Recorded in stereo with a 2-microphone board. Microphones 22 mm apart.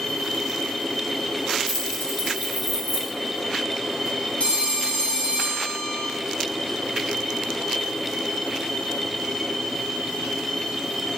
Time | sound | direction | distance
1.7 | keys jangling | 85° left | 1.7 m
4.4 | a phone ringing | 55° left (ahead or behind) | 1.1 m